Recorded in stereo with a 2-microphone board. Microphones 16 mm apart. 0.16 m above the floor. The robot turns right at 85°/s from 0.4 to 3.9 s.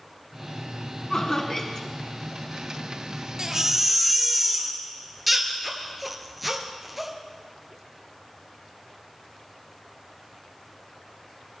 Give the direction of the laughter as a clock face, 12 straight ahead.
9 o'clock.